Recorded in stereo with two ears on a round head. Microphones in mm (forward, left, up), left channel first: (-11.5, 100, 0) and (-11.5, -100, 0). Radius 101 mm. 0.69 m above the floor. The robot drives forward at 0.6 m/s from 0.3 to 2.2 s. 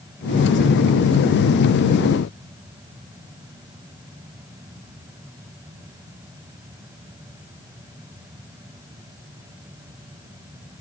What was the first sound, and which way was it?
Only background noise.